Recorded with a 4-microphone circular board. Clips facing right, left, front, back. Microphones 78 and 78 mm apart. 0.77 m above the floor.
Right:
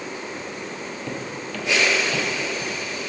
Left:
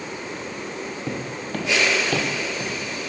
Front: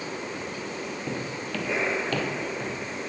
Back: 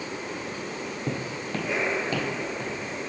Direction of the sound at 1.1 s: 150° left.